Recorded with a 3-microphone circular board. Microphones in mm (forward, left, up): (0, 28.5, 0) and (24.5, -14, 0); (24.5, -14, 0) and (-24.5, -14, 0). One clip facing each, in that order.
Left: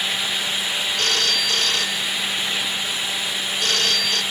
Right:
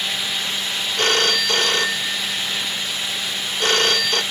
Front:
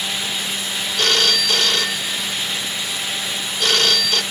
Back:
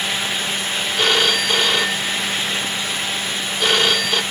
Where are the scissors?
I don't hear scissors.